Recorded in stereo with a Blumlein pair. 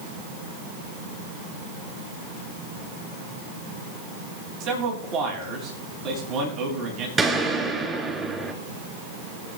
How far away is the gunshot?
About 3 m.